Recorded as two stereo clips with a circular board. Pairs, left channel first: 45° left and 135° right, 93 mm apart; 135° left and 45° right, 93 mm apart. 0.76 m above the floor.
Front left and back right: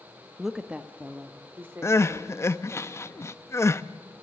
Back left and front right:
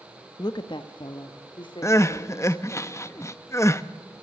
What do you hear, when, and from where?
0.4 s a woman speaking: 135° left, 0.6 m; by 2.8 s 165° left, 3 m
1.8 s crying: 90° left, 0.7 m